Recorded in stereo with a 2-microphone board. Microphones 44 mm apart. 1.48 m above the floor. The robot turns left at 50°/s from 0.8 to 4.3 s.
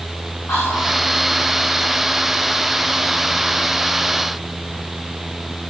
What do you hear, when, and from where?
0.5 s whispering: 75° left (ahead or behind), 1.0 m; by 1.0 s 65° left (ahead or behind), 1.0 m